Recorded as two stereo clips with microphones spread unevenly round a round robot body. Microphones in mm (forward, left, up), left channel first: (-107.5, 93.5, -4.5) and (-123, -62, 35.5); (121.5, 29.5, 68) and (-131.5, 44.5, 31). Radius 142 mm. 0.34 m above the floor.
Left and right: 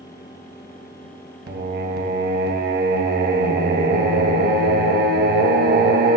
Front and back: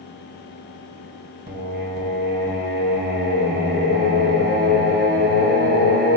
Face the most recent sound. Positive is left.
turn(degrees=-125)